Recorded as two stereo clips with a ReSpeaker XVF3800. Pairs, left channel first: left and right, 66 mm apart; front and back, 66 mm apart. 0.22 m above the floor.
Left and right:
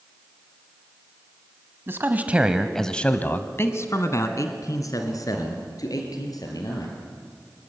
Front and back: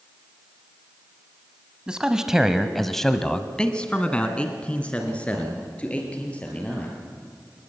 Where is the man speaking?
110° right, 1.3 m; by 7.0 s 70° left, 4.5 m.